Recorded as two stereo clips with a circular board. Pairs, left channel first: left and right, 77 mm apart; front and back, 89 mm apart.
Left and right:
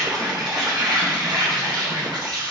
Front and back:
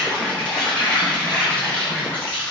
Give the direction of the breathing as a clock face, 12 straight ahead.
I don't hear breathing.